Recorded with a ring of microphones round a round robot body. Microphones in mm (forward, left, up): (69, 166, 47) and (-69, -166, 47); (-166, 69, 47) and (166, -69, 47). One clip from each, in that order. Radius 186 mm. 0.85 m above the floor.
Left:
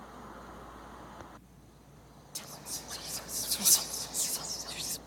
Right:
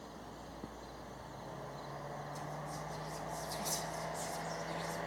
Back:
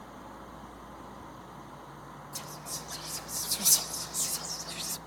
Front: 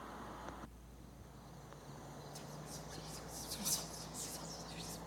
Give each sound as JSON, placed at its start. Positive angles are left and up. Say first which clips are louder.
{"t": 2.4, "sound": "whispering", "louder": "even, back 14 dB", "azimuth_deg": 105, "distance_m": 0.9}